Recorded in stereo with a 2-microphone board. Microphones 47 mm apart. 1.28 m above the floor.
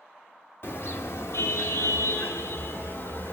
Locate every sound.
0.6 s a car horn: 55° left (ahead or behind), 2 m; by 3.3 s 45° left (ahead or behind), 3 m